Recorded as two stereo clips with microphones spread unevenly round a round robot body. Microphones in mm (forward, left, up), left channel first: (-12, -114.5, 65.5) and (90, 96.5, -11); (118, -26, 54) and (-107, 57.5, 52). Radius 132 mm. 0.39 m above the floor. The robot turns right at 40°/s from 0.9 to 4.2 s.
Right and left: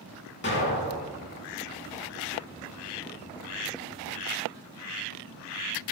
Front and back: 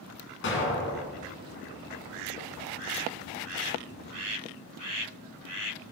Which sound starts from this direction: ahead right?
An explosion, at 0.4 s.